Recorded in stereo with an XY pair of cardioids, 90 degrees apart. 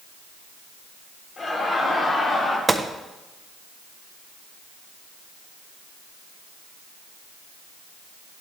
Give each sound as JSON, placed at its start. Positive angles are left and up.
{"t": 1.4, "sound": "laughter", "azimuth_deg": 50, "distance_m": 3.5}
{"t": 2.7, "sound": "a gunshot", "azimuth_deg": -20, "distance_m": 0.6}